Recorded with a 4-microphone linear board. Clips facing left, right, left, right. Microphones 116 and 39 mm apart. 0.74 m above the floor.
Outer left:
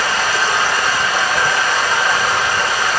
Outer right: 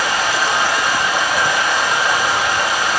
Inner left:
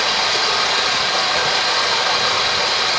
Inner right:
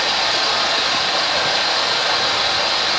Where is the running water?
20° right (ahead or behind), 2.5 m.